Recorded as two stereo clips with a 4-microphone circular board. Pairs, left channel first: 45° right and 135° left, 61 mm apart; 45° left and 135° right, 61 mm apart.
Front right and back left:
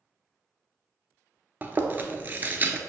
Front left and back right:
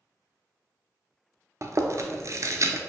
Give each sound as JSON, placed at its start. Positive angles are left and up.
{"t": 1.6, "sound": "chewing", "azimuth_deg": -165, "distance_m": 0.6}